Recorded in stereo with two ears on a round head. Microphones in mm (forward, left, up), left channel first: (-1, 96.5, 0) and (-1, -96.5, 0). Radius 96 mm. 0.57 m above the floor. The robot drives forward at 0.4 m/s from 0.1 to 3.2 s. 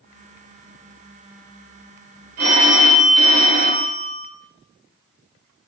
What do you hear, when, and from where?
2.4 s a phone ringing: 65° right (ahead or behind), 1.4 m; by 4.3 s 55° right (ahead or behind), 1.5 m